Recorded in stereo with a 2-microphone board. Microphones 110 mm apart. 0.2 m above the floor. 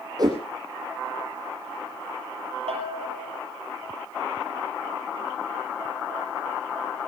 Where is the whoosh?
40° right (ahead or behind), 8.5 m.